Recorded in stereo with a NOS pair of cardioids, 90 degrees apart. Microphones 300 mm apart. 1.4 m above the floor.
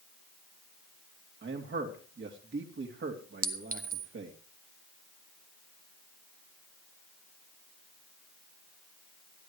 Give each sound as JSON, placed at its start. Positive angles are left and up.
{"t": 1.4, "sound": "a man speaking", "azimuth_deg": -40, "distance_m": 3.0}
{"t": 3.4, "sound": "a clink", "azimuth_deg": -30, "distance_m": 1.6}